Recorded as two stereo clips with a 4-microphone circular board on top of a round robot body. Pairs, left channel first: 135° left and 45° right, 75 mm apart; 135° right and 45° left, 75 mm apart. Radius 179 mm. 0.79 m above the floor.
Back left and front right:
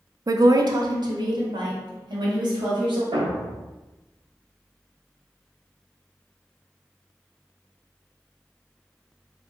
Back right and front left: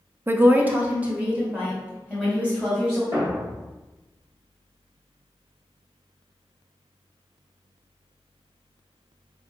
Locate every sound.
0.3 s a woman speaking: 10° right, 0.5 m; by 3.0 s 35° right, 2 m
3.1 s a thud: 15° right, 0.8 m